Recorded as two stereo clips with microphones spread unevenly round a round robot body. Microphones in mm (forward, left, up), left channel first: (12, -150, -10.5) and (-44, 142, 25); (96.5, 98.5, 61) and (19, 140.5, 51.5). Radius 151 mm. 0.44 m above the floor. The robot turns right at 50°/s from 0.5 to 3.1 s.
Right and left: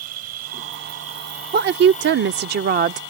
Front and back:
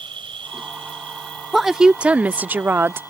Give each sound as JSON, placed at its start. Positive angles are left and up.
{"t": 0.0, "sound": "an insect", "azimuth_deg": 145}
{"t": 1.5, "sound": "a woman speaking", "azimuth_deg": 75}